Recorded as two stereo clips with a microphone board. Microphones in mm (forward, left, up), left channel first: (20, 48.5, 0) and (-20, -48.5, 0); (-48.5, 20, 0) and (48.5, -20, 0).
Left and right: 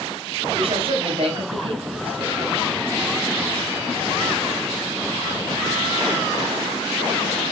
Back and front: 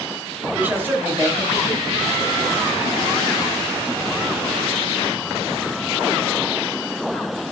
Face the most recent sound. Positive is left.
turn(degrees=-80)